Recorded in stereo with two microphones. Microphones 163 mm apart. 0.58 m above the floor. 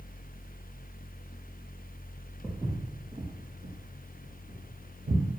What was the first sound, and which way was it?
Footsteps, centre (ahead or behind).